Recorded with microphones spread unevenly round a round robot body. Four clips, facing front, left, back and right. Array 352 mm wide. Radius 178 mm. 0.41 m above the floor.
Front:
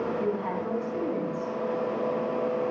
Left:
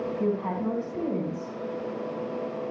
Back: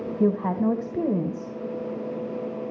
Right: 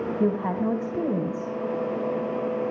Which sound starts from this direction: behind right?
A woman speaking, at 0.2 s.